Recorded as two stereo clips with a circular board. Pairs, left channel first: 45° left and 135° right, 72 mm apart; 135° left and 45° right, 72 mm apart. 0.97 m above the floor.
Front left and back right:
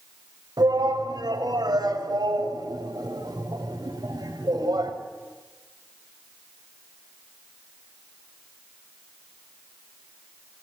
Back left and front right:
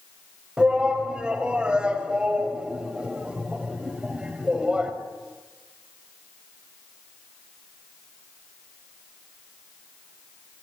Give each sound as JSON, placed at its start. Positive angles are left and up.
{"t": 0.6, "sound": "a shout", "azimuth_deg": -120, "distance_m": 6.0}